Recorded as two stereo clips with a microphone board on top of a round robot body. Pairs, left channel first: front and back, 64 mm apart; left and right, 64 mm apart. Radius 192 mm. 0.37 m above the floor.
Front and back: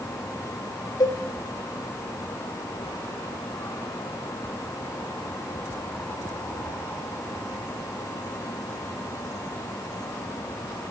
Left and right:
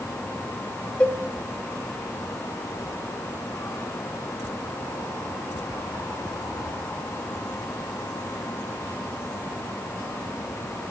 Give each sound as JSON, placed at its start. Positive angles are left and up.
{"t": 1.0, "sound": "a cowbell", "azimuth_deg": 20, "distance_m": 0.8}